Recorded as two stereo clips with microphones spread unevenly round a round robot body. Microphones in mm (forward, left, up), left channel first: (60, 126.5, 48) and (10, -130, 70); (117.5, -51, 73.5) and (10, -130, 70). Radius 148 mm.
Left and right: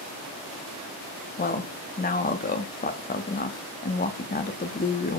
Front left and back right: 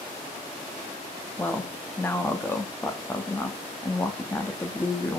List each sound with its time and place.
1.4 s a woman speaking: 105° left, 0.9 m